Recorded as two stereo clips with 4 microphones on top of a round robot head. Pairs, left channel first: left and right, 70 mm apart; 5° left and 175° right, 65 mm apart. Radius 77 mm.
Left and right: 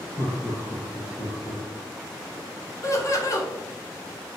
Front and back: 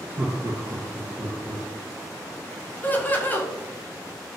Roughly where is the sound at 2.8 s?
Ahead left.